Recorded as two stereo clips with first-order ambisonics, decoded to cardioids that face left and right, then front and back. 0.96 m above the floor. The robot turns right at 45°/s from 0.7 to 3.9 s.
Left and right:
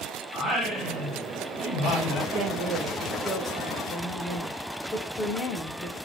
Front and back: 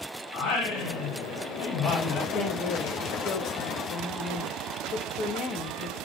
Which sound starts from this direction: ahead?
Singing, at 0.3 s.